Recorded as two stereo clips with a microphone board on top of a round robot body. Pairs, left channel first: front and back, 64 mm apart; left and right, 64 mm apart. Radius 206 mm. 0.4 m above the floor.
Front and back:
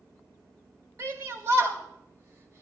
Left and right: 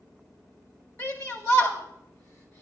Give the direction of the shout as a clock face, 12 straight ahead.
8 o'clock.